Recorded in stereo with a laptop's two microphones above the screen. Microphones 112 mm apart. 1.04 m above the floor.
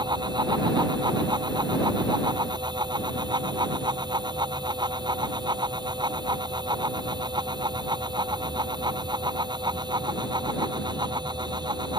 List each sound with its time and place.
0.0 s a fan: 45° right (ahead or behind)